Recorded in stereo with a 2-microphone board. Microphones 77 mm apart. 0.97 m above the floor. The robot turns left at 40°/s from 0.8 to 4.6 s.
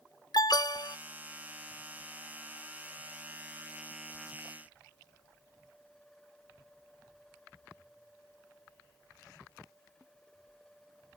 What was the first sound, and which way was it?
An alarm, 65° left (ahead or behind).